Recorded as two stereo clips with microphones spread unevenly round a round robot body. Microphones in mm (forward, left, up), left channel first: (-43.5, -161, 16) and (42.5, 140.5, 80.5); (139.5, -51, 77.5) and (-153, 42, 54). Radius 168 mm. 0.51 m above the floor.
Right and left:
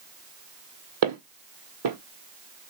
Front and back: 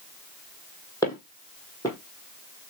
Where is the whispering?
No whispering in this recording.